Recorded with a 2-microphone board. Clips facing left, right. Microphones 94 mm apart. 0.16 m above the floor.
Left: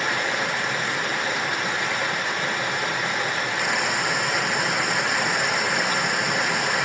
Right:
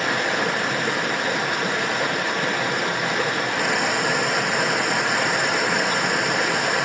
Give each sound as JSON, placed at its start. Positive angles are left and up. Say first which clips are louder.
{"t": 0.0, "sound": "running water", "louder": "right 3 dB", "side_deg": -55, "distance_m": 1.2}